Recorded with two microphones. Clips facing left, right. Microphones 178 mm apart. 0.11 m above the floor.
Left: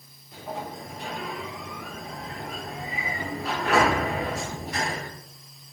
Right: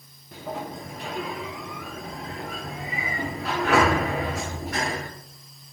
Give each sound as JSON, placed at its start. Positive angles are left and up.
{"t": 0.3, "sound": "a sliding door", "side_deg": -75, "distance_m": 7.0}